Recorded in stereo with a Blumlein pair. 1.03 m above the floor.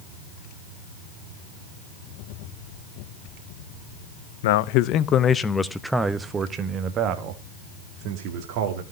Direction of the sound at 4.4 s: 55° left.